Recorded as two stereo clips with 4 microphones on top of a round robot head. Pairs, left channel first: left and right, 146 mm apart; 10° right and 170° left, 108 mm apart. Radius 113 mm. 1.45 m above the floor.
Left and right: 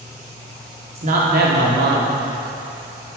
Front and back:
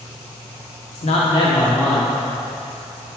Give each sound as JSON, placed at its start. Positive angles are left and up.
{"t": 0.9, "sound": "a man speaking", "azimuth_deg": -35, "distance_m": 1.2}